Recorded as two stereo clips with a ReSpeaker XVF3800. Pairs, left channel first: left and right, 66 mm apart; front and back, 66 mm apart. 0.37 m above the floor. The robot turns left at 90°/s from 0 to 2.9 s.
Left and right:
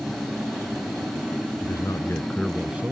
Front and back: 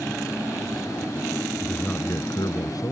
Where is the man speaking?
85° left; by 2.9 s 30° right.